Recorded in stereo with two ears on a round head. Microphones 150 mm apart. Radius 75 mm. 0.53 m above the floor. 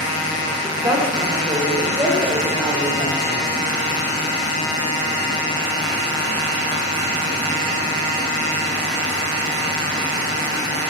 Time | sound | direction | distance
0.6 | a woman speaking | 20° right (ahead or behind) | 1.7 m